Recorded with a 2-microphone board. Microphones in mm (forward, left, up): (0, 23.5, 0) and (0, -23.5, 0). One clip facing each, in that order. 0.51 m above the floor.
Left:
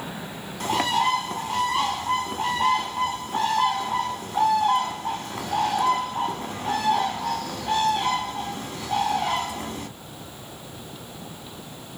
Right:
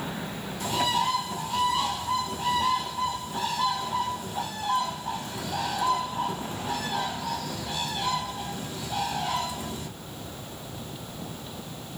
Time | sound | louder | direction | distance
0.6 | a bird | left 4 dB | 55° left (ahead or behind) | 0.8 m